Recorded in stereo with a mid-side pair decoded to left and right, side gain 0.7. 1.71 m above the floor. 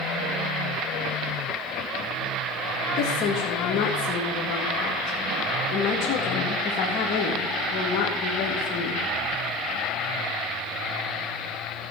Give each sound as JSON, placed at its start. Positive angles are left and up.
{"t": 3.0, "sound": "a woman speaking", "azimuth_deg": 55, "distance_m": 3.0}